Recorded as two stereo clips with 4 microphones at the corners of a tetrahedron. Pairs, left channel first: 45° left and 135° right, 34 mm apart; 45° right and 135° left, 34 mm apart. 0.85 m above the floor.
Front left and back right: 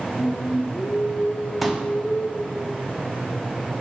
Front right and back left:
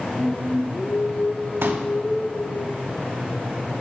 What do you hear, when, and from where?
0.2 s singing: 10° left, 1.8 m
1.6 s a pop: 140° left, 1.0 m